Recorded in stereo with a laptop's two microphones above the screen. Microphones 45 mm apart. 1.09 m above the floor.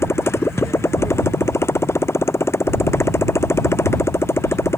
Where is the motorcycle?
75° left (ahead or behind).